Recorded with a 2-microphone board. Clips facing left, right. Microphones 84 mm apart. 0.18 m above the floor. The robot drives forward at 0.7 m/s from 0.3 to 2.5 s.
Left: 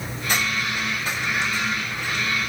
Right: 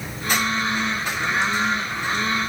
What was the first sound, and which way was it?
Only background noise.